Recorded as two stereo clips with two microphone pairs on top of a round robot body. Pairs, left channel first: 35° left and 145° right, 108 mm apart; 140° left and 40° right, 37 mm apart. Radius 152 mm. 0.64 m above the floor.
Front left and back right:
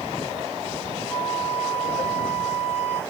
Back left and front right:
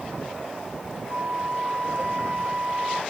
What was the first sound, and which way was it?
A flute, 45° right.